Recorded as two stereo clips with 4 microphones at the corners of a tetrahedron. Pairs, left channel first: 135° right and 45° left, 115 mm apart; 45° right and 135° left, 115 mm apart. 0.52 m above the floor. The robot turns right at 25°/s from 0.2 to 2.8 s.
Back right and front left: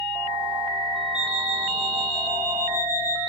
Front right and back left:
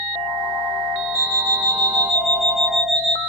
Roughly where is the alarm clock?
Ahead left.